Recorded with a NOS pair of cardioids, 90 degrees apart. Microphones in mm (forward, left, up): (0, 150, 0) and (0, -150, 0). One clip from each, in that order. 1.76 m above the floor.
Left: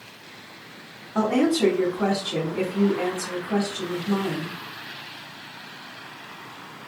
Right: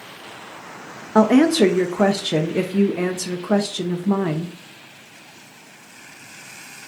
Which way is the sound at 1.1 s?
70° right.